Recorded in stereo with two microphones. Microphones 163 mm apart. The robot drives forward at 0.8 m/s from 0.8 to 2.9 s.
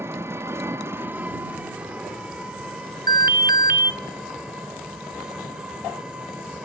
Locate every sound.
0.0 s an engine running: 15° right (ahead or behind), 1.0 m; by 6.6 s 5° right (ahead or behind), 2.5 m
3.1 s an alarm: 70° right (ahead or behind), 0.7 m